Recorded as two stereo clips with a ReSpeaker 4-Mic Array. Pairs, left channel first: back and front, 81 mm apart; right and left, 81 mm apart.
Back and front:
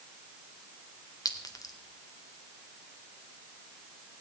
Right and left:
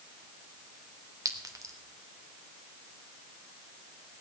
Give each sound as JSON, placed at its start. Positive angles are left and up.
{"t": 1.2, "sound": "a clink", "azimuth_deg": 135, "distance_m": 1.5}